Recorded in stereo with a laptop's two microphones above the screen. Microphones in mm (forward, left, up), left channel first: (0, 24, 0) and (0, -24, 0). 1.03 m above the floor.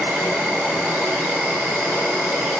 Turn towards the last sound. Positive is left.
turn(degrees=-50)  # may be behind; listen again after turning